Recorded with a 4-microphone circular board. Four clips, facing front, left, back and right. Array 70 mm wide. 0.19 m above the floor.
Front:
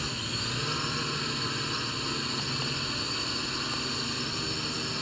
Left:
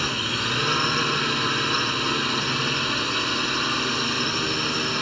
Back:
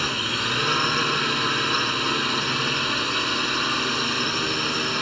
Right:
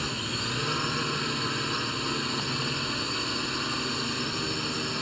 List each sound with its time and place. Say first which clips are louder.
0.0 s a drone: left 6 dB, back 9 dB; 145° left